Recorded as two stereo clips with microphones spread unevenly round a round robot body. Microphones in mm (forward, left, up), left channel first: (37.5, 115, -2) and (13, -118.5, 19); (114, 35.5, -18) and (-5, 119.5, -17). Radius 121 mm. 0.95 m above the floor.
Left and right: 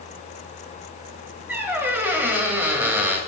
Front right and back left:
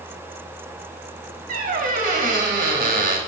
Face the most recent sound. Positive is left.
turn(degrees=-175)